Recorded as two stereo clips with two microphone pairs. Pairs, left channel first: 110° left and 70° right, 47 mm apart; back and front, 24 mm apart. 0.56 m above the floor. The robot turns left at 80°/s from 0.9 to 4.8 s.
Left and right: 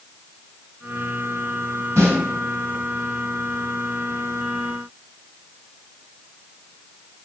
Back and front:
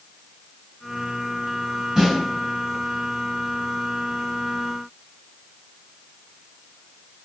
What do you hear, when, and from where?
2.0 s a snare drum: 65° right, 1.5 m; by 2.2 s 80° right, 1.5 m